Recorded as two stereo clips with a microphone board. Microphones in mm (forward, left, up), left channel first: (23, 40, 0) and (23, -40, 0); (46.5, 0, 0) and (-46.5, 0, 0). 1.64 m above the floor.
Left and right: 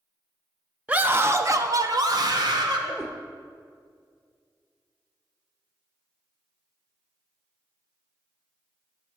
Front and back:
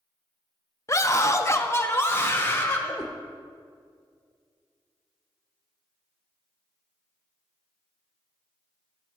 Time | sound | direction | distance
0.9 | a scream | 25° right | 0.5 m
3.0 | a cat meowing | 10° right | 0.9 m